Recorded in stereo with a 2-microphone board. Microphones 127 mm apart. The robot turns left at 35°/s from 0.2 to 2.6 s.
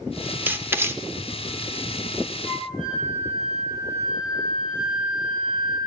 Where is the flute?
85° left, 7 m.